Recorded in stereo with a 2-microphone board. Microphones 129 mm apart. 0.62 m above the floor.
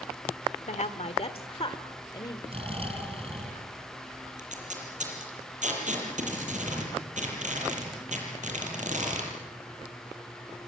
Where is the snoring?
45° right (ahead or behind), 4.5 m.